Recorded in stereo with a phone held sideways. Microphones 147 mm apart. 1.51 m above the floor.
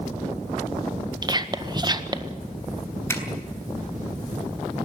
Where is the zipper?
15° left (ahead or behind), 3.5 m.